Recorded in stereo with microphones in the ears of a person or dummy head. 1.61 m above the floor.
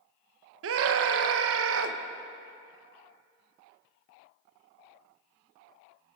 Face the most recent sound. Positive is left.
turn(degrees=-80)